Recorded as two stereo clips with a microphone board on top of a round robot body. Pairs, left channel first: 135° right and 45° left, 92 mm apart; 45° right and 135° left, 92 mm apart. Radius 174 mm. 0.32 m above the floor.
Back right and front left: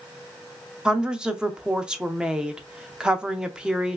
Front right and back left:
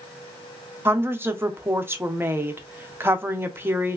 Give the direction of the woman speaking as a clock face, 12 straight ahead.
8 o'clock.